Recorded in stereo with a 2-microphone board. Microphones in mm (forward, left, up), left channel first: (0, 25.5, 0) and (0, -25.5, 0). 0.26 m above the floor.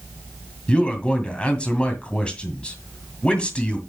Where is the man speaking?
20° left (ahead or behind), 1.9 m.